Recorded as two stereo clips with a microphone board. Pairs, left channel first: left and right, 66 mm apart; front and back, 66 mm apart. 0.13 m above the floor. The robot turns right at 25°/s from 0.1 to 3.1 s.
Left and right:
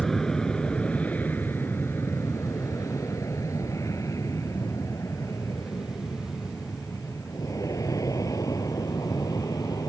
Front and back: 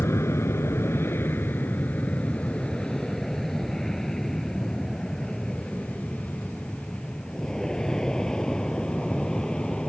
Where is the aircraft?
10° left; by 9.9 s 75° left.